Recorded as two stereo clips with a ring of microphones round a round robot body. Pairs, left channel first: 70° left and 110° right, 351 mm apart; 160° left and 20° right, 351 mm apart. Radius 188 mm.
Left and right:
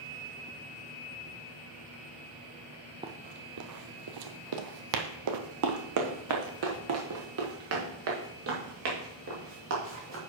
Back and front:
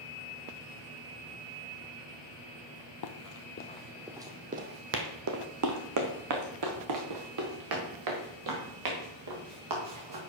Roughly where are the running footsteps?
Behind.